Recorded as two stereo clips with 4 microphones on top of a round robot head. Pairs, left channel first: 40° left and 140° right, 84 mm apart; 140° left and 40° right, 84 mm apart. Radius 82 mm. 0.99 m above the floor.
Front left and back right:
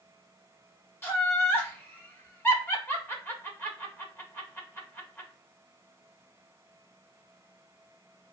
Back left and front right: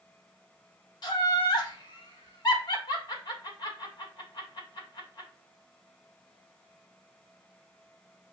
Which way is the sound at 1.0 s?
105° left.